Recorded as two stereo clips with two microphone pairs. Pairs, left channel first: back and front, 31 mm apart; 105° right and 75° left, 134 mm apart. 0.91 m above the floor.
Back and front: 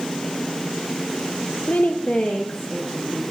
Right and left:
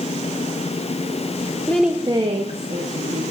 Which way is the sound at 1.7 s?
175° right.